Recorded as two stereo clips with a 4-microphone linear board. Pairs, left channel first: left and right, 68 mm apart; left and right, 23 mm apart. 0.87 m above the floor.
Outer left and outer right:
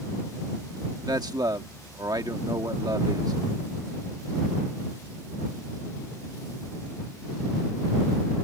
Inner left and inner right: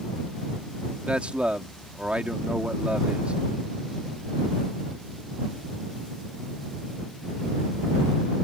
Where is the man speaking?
75° right (ahead or behind).